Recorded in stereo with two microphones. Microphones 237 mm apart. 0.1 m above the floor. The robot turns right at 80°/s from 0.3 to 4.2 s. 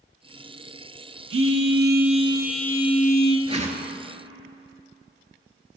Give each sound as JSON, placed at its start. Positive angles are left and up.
{"t": 1.3, "sound": "a phone buzzing", "azimuth_deg": -100, "distance_m": 0.8}
{"t": 3.5, "sound": "a whoosh", "azimuth_deg": -150, "distance_m": 0.5}